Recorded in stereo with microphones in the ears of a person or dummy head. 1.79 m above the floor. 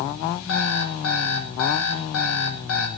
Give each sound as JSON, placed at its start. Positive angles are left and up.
{"t": 0.5, "sound": "an alarm clock", "side_deg": 80, "distance_m": 5.5}